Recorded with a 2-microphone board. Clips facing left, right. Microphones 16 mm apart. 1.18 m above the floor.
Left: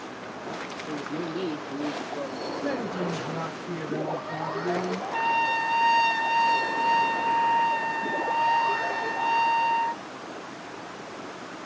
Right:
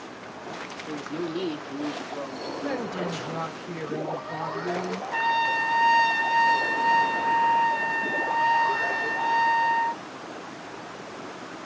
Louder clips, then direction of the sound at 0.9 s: Right 1 dB; 70° right (ahead or behind).